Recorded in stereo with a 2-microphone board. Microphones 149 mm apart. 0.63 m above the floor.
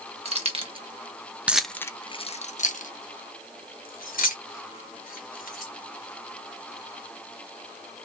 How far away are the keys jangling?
About 1.0 m.